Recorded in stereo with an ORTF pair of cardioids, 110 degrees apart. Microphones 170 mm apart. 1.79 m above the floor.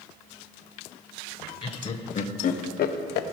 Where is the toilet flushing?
I don't hear a toilet flushing.